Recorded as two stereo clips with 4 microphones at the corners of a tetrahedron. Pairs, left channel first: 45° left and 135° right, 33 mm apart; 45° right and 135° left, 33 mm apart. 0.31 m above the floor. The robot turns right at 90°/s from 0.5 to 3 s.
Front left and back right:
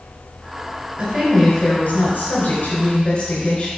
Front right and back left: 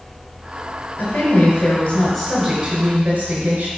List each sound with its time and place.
1.0 s a woman speaking: 75° right, 4 m; by 3.7 s 105° left, 4 m